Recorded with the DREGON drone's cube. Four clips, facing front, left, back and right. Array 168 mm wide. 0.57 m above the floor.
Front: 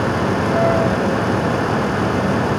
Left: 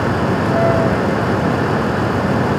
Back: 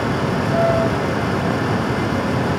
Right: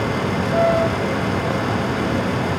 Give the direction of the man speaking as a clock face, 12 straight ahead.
I don't hear a man speaking.